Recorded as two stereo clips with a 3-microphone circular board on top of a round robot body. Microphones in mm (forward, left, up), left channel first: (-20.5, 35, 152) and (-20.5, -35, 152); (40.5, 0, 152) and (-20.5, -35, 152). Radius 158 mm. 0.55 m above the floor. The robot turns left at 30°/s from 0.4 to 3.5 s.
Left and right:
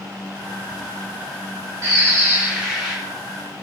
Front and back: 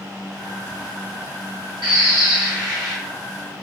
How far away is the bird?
About 0.7 m.